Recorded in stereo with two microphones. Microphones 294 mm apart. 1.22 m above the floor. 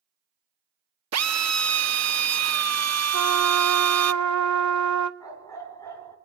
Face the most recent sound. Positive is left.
turn(degrees=10)  # may be behind; listen again after turning